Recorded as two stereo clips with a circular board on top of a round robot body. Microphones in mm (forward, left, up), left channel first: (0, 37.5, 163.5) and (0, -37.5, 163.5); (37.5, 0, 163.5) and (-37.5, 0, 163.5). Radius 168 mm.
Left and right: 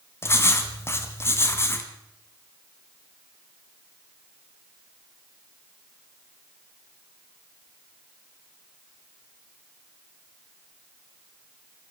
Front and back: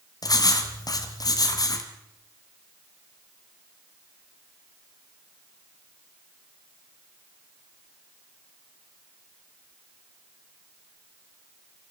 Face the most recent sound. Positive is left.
turn(degrees=35)